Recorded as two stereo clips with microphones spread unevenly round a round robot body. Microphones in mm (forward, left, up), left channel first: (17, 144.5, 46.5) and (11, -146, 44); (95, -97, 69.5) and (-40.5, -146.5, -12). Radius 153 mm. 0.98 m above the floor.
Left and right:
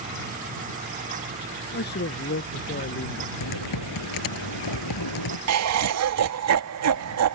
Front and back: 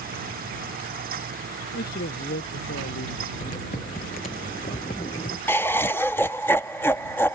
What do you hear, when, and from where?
1.7 s a man speaking: 35° left
3.4 s typing on a keyboard: 80° left
5.5 s laughter: 60° right